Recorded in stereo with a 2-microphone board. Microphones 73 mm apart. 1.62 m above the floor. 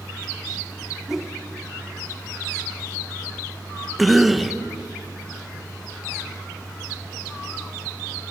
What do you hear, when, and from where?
1.1 s a whoosh: 5° right (ahead or behind), 2.5 m
4.0 s a cough: centre (ahead or behind), 1.5 m